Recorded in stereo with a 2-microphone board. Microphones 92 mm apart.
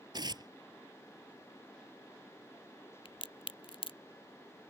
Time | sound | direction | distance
0.1 | tearing paper | 50° right (ahead or behind) | ?
3.0 | a crack | 80° left | ?